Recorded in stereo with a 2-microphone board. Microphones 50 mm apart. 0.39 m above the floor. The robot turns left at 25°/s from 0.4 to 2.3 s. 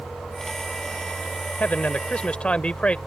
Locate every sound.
1.6 s a man speaking: 35° left (ahead or behind); by 3.0 s 25° left (ahead or behind)